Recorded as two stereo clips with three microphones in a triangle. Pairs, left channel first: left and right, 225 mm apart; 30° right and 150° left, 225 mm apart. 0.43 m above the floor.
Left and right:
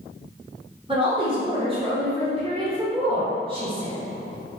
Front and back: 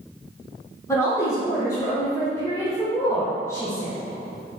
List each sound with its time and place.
0.9 s a woman speaking: 85° right, 1.0 m